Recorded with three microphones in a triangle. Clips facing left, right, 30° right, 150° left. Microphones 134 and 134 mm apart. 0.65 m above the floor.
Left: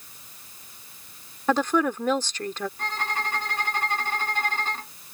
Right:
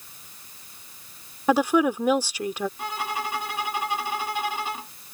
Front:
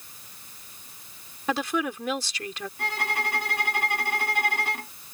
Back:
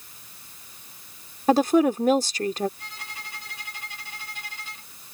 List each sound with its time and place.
1.5 s a woman speaking: 170° right
2.8 s a violin: 10° right